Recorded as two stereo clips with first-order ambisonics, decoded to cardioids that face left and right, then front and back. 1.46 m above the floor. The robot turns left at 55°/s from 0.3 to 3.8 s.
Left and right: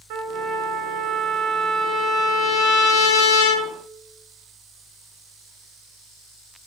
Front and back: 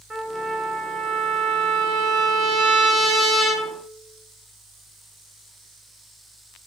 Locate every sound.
0.1 s a trumpet: 95° right, 0.6 m; by 3.7 s 75° left, 0.6 m